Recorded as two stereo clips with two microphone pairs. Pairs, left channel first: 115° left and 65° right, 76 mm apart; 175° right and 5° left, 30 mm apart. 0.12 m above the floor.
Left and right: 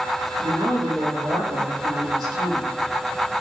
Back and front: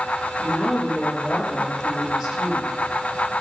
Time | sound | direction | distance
0.4 | a woman speaking | 75° right | 4.5 m